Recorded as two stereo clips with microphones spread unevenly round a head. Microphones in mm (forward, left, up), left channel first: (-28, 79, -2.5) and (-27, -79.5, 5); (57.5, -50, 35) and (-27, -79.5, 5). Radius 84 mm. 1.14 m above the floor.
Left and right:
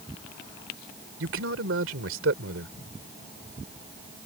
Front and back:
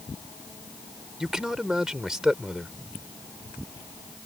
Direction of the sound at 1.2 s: 75° right.